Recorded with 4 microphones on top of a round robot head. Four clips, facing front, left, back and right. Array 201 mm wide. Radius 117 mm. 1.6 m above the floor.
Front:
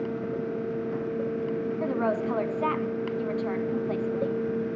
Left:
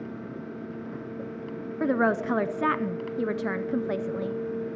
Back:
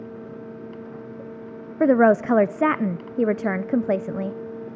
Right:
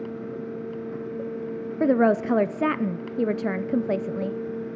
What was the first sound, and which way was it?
A woman speaking, 155° right.